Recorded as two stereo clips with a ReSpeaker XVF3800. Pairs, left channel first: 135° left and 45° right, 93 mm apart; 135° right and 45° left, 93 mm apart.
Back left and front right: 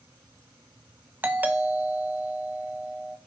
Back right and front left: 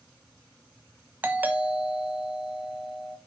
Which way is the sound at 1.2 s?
5° right.